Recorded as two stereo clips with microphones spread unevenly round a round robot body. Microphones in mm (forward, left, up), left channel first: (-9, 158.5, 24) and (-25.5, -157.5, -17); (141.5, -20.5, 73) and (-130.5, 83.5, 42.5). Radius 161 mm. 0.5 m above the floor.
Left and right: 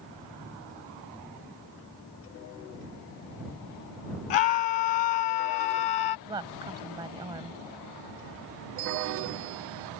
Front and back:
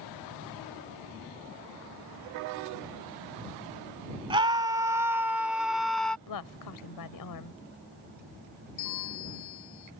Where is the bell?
55° right.